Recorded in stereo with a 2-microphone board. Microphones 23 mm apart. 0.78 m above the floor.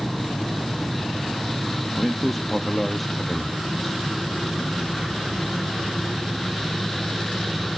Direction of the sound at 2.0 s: 5° left (ahead or behind).